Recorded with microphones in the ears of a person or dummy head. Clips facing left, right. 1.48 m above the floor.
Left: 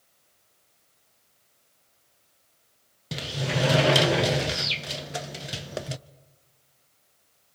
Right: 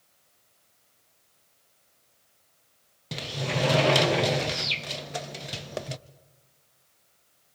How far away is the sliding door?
About 0.6 m.